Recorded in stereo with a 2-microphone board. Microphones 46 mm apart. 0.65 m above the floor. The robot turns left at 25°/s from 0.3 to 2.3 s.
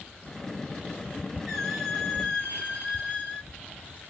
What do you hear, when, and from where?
1.5 s a squeak: 5° right (ahead or behind), 4.5 m; by 3.5 s 15° left (ahead or behind), 4.5 m